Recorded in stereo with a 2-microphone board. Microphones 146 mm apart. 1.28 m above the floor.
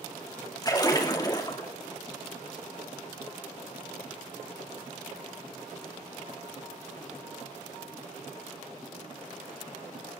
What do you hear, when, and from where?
0.6 s a splash: 25° left (ahead or behind), 2.5 m